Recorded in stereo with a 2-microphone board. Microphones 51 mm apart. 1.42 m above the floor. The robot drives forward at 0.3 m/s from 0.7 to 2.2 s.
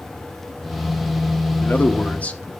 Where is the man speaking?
35° left (ahead or behind), 0.8 m; by 2.5 s 30° left (ahead or behind), 1.0 m.